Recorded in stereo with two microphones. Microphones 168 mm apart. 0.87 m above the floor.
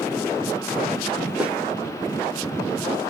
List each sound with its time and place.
1.4 s a snare drum: 5° right (ahead or behind), 0.8 m